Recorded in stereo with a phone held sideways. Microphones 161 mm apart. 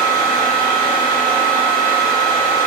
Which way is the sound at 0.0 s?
30° left (ahead or behind).